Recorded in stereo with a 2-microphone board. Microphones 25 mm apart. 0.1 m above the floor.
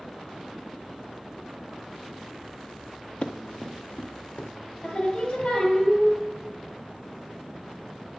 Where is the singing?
50° left (ahead or behind), 1.8 m.